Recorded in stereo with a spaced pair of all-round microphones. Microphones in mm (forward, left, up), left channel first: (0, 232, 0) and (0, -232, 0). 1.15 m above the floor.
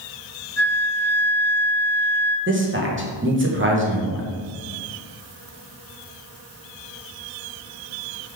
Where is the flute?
75° left (ahead or behind), 1.9 m.